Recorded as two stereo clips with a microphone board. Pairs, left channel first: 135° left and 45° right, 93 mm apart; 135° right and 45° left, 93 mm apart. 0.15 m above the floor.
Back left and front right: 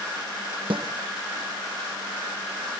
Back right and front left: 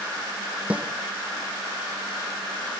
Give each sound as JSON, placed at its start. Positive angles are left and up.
{"t": 0.7, "sound": "a snare drum", "azimuth_deg": -30, "distance_m": 1.3}